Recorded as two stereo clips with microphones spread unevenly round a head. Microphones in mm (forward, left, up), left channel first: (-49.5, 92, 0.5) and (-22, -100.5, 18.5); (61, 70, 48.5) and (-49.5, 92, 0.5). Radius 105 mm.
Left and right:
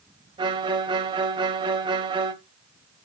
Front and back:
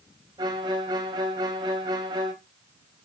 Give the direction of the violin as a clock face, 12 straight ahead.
4 o'clock.